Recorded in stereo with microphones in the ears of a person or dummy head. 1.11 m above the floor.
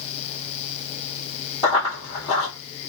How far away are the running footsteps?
About 1.6 m.